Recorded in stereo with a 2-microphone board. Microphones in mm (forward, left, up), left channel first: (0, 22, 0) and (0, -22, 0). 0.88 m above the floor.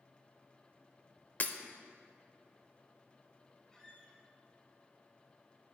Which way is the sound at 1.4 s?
40° left (ahead or behind).